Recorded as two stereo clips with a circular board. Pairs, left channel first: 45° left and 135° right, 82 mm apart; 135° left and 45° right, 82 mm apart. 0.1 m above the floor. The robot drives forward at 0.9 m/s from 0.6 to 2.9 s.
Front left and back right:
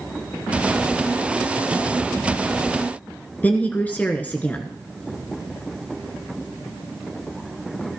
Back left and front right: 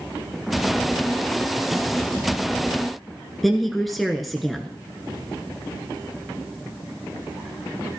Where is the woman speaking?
50° left, 1.2 m.